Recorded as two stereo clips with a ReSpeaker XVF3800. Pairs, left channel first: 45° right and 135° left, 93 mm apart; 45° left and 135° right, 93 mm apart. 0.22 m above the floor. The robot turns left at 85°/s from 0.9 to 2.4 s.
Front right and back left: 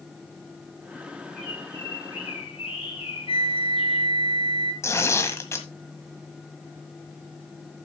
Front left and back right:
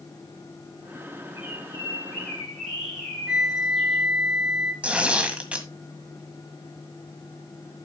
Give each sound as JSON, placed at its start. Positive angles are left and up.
{"t": 1.4, "sound": "a bird", "azimuth_deg": 45, "distance_m": 6.5}
{"t": 3.3, "sound": "a flute", "azimuth_deg": -55, "distance_m": 2.5}
{"t": 4.8, "sound": "tearing paper", "azimuth_deg": -70, "distance_m": 1.6}